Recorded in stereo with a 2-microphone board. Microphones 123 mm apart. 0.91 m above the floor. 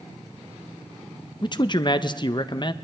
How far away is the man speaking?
About 0.5 m.